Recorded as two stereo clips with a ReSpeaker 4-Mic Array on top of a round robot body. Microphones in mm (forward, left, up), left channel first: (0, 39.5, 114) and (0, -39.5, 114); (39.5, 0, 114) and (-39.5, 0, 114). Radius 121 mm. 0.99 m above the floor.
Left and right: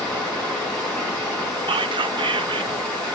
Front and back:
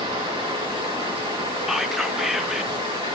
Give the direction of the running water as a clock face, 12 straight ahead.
6 o'clock.